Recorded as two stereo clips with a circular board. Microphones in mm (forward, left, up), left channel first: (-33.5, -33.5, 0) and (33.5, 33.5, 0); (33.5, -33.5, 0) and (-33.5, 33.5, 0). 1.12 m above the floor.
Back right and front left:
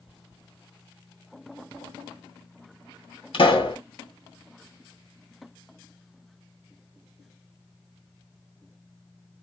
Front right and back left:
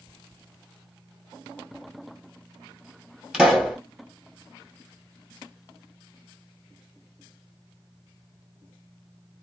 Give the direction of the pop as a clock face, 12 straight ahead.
5 o'clock.